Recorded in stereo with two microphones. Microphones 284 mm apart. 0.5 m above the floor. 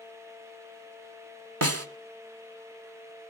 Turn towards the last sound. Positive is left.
turn(degrees=-55)  # may be behind; listen again after turning